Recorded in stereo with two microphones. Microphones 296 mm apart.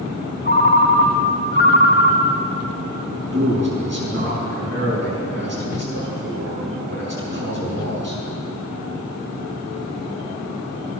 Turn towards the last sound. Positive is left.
turn(degrees=-35)  # may be behind; listen again after turning